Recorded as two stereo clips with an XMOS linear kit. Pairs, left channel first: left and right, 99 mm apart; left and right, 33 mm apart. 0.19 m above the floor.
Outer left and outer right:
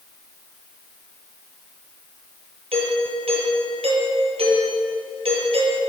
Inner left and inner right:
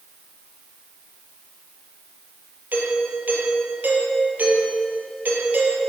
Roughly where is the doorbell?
Right.